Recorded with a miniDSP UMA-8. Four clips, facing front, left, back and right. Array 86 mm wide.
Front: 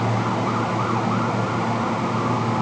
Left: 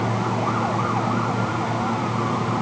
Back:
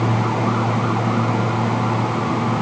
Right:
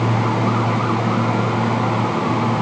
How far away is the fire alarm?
No fire alarm in this recording.